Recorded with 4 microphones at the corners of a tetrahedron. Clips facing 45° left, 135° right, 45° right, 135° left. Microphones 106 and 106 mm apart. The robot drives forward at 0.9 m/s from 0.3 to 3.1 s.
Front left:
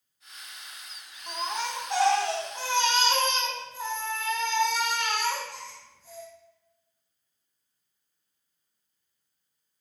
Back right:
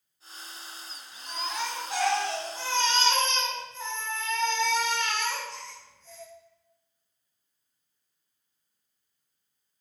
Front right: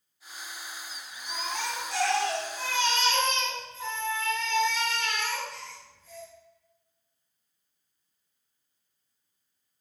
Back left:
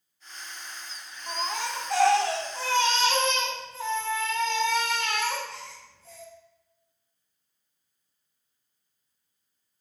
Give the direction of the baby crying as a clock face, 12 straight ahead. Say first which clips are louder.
Front left 2 dB, back left 3 dB; 9 o'clock.